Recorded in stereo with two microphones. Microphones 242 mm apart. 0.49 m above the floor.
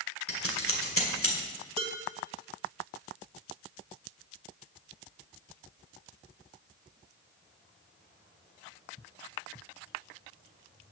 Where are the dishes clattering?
25° right (ahead or behind), 1.5 m.